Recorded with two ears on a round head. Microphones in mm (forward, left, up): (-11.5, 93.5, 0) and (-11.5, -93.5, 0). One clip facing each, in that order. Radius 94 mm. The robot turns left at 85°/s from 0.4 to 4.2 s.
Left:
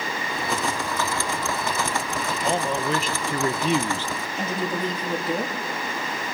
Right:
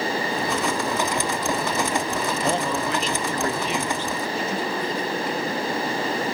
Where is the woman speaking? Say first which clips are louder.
Left 4 dB; 30° left (ahead or behind), 2.5 m.